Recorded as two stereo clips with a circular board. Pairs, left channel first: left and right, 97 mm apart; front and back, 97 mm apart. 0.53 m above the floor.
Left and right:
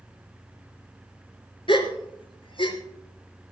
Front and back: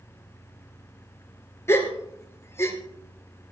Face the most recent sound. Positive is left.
turn(degrees=65)